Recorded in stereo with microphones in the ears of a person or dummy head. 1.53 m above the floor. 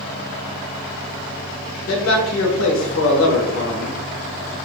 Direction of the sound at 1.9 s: 85° left.